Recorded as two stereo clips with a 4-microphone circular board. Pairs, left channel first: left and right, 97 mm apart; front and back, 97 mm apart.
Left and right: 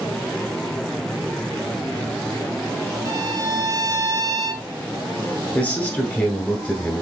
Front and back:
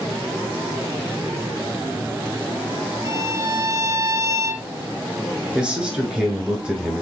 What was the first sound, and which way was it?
A violin, 135° right.